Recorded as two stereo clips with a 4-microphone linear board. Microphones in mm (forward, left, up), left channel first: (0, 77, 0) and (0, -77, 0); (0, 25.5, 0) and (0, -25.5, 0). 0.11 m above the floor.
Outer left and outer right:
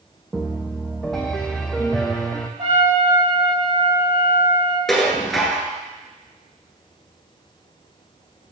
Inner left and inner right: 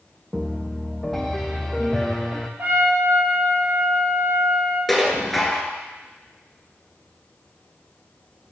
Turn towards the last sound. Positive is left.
turn(degrees=0)  # may be behind; listen again after turning